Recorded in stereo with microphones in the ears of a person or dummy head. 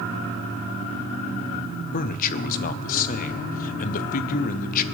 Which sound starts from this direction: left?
A man speaking, at 1.9 s.